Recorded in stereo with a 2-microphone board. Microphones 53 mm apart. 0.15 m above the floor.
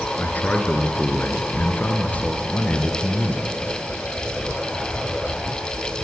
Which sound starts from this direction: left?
A man speaking, at 0.2 s.